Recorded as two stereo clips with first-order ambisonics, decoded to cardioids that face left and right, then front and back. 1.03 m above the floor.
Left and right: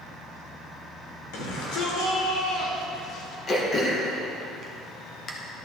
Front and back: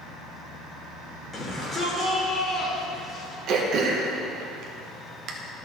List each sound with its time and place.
1.3 s a shout: 75° left, 3 m
3.5 s throat clearing: 150° left, 1.0 m